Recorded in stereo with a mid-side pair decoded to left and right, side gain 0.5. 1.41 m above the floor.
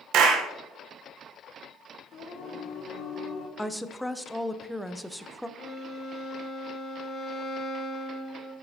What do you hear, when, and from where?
0.1 s a clap: 70° right, 1.0 m
2.1 s singing: 65° left, 1.6 m
3.6 s a woman speaking: straight ahead, 0.7 m
5.6 s a violin: 50° left, 1.2 m